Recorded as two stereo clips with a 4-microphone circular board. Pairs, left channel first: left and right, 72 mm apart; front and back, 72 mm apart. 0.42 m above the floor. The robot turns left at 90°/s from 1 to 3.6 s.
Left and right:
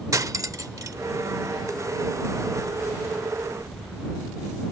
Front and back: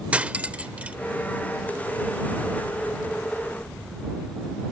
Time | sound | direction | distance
0.1 | cutlery clinking | 110° right | ?